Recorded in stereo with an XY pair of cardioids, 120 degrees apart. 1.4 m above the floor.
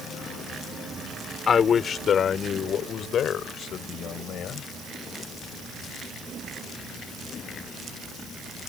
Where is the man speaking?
40° left; by 4.7 s 60° left.